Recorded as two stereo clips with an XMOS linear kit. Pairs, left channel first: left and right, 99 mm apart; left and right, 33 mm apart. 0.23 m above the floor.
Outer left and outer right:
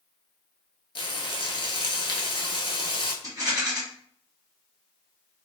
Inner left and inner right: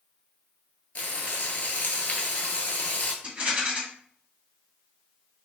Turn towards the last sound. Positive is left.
turn(degrees=-40)  # may be behind; listen again after turning